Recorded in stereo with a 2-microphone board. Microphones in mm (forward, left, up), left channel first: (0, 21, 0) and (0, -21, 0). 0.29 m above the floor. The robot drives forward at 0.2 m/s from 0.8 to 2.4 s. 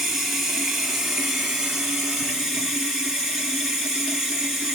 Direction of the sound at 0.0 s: 5° right (ahead or behind).